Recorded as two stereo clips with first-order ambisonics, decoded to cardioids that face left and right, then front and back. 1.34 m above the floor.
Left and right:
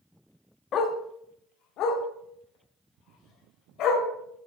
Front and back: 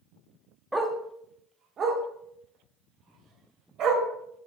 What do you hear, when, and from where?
0.7 s a dog barking: 95° left, 0.8 m; by 4.0 s 130° left, 3 m